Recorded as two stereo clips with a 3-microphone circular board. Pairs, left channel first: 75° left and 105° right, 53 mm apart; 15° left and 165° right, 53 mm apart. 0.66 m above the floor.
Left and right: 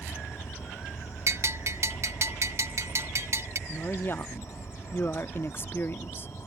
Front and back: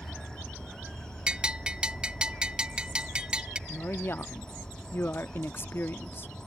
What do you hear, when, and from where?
0.0 s an insect: 90° left
1.3 s a bell: 95° right
3.7 s a woman speaking: 45° left